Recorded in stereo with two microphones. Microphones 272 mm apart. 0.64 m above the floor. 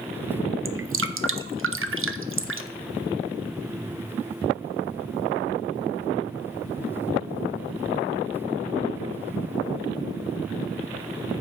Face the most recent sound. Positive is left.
turn(degrees=-50)  # may be behind; listen again after turning